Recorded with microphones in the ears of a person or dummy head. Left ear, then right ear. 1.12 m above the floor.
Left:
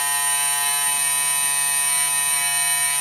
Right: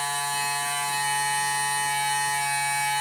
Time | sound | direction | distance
0.0 | a machine running | 75° left (ahead or behind) | 6.5 m